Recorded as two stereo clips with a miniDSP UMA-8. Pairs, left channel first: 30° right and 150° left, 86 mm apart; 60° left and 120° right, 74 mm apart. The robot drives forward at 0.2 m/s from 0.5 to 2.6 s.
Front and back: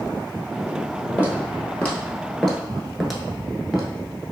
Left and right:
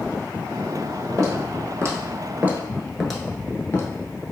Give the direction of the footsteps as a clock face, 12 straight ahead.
3 o'clock.